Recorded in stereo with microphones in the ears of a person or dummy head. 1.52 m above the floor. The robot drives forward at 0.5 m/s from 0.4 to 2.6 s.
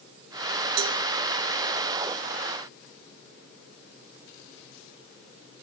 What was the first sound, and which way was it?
A cowbell, 80° right.